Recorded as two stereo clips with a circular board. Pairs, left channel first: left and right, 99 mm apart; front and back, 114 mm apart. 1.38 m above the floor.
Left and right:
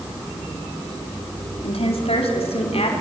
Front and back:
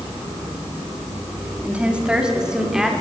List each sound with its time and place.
1.6 s a woman speaking: 100° left, 4 m; by 2.9 s 95° left, 5.5 m